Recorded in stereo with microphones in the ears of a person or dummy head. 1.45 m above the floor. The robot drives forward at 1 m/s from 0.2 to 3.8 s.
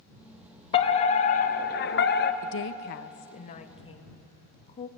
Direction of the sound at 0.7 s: 30° left (ahead or behind).